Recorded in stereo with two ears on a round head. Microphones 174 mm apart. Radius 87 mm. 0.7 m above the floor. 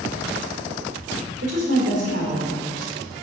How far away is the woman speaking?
About 2.5 m.